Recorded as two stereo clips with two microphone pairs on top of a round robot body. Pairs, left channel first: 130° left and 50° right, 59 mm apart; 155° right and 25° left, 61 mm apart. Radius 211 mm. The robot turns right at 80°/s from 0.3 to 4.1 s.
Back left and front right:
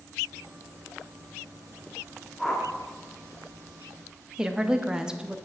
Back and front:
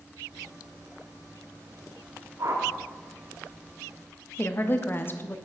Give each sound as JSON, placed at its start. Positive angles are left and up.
{"t": 2.4, "sound": "a whoosh", "azimuth_deg": 45, "distance_m": 1.2}
{"t": 4.4, "sound": "a woman speaking", "azimuth_deg": -125, "distance_m": 0.9}